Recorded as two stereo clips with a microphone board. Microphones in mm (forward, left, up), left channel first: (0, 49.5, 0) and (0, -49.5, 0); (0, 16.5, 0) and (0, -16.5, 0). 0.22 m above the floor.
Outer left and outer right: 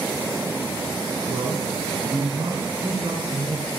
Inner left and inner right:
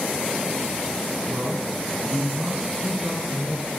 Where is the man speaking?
25° right (ahead or behind), 2.5 m; by 3.7 s 50° right (ahead or behind), 3 m.